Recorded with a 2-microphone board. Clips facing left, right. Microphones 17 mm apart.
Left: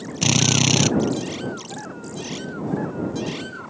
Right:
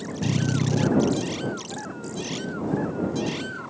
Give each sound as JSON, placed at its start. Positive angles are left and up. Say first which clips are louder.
{"t": 0.2, "sound": "a drill", "louder": "left 8 dB", "side_deg": 60}